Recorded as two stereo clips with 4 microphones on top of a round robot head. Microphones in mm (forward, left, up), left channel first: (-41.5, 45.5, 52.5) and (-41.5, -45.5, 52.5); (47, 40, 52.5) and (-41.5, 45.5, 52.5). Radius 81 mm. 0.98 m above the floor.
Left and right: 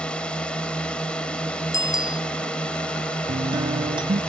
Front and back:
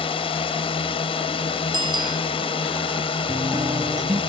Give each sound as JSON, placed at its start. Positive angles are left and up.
{"t": 0.0, "sound": "a drone", "azimuth_deg": 10}
{"t": 1.7, "sound": "a bicycle bell", "azimuth_deg": 140}
{"t": 3.3, "sound": "a guitar", "azimuth_deg": -125}